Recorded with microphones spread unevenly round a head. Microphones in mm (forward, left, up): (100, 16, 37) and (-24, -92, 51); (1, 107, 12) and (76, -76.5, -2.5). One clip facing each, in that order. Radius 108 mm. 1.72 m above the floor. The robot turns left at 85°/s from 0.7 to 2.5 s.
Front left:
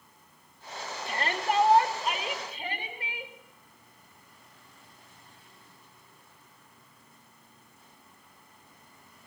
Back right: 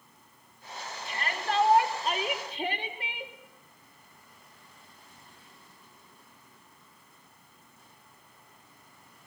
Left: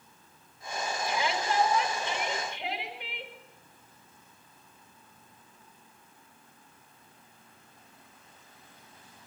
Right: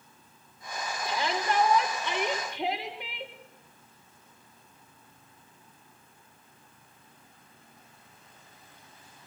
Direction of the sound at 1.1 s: Straight ahead.